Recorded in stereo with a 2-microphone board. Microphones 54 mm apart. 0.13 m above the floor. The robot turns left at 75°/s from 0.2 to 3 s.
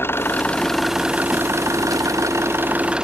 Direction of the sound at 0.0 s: 45° left.